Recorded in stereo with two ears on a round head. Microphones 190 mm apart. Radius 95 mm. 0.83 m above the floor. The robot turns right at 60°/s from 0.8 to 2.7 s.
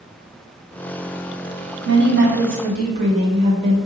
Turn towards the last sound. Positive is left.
turn(degrees=-35)